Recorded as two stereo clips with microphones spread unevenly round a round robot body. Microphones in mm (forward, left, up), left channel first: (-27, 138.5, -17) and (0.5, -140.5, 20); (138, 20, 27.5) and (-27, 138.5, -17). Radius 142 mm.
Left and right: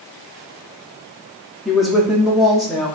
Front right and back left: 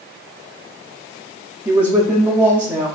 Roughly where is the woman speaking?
Behind.